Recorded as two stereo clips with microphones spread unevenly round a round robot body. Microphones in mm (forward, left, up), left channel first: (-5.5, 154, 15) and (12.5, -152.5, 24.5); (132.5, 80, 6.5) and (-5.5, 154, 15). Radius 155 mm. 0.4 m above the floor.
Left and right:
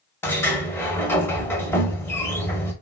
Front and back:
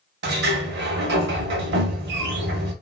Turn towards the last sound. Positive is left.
turn(degrees=175)